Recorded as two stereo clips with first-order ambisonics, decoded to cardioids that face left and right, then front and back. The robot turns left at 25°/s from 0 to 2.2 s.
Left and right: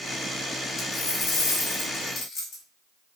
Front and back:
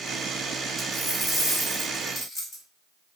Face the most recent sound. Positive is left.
turn(degrees=50)